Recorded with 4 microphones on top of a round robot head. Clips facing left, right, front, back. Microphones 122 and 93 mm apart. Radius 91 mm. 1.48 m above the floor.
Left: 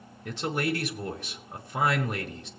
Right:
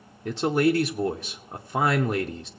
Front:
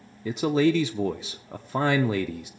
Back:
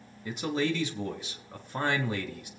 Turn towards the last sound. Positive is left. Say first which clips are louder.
# right 8 dB, front 8 dB
turn(degrees=-25)